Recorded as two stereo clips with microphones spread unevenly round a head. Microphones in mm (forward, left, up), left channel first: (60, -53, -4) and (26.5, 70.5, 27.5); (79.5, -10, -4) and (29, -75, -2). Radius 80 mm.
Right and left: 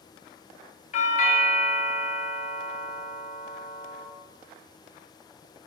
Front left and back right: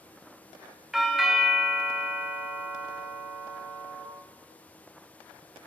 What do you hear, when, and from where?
0.9 s a doorbell: 40° right, 0.5 m